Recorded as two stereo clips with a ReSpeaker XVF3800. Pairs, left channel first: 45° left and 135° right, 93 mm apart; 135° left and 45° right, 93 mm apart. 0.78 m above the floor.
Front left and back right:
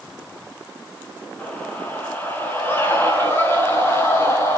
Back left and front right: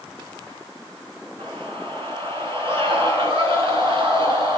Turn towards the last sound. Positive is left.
turn(degrees=-15)